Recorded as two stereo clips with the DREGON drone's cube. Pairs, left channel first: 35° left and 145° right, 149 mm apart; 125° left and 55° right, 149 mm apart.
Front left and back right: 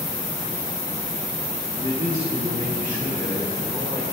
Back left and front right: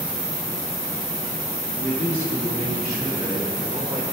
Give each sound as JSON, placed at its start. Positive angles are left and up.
{"t": 1.8, "sound": "a man speaking", "azimuth_deg": 175, "distance_m": 2.0}